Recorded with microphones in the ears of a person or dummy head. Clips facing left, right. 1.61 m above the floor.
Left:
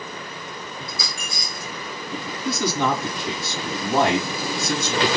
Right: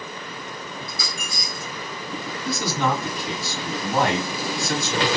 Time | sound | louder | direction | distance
0.9 | a dropped coin | even | 50° left (ahead or behind) | 2 m
2.5 | a man speaking | left 2 dB | 30° left (ahead or behind) | 3 m